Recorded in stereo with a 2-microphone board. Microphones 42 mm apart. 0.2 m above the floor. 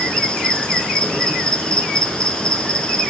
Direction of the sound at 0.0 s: 20° left (ahead or behind).